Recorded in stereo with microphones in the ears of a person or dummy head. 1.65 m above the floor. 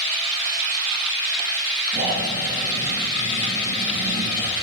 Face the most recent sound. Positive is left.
turn(degrees=-15)  # may be behind; listen again after turning